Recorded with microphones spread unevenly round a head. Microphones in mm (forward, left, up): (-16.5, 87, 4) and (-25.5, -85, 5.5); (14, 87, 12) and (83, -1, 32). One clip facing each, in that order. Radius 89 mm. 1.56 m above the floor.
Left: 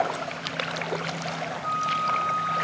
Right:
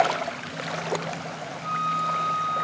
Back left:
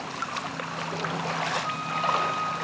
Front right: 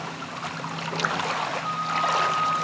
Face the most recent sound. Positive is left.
turn(degrees=-140)